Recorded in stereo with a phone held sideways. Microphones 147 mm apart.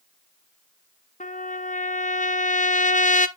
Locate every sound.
1.2 s a trumpet: 60° left (ahead or behind), 0.6 m